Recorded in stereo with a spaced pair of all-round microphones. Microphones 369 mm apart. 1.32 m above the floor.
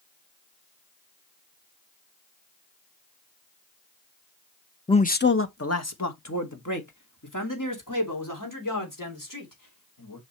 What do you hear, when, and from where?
4.9 s a man speaking: 10° left (ahead or behind), 0.6 m; by 10.2 s 60° left (ahead or behind), 4.5 m